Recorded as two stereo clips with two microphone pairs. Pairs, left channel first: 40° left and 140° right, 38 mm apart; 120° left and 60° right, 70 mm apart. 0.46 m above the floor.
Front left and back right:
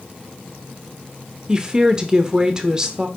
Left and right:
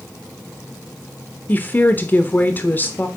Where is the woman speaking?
165° left, 1.0 m.